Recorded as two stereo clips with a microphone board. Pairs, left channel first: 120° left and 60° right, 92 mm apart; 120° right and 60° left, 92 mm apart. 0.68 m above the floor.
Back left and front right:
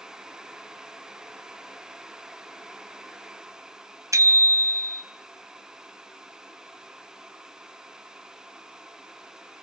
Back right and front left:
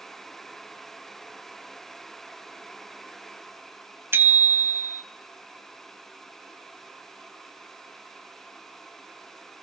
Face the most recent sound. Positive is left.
turn(degrees=-5)